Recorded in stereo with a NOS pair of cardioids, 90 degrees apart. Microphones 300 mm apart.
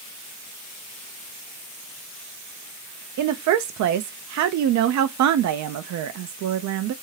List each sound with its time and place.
3.2 s a woman speaking: 65° right, 0.7 m